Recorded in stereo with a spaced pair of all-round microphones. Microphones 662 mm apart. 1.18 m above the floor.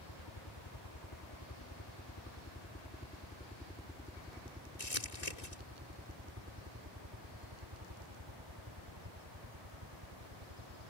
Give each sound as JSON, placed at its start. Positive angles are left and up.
{"t": 0.0, "sound": "a helicopter", "side_deg": 40}
{"t": 4.8, "sound": "crumpling", "side_deg": 75}